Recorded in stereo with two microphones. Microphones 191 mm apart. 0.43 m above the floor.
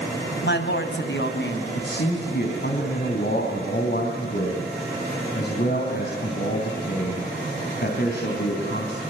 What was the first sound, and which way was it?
A woman speaking, 70° left (ahead or behind).